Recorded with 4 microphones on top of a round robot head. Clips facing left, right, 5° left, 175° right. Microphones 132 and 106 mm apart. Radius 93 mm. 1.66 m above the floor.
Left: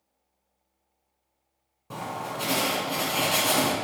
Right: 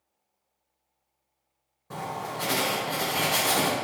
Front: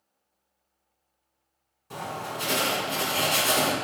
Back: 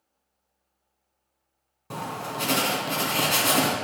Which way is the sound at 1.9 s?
165° left.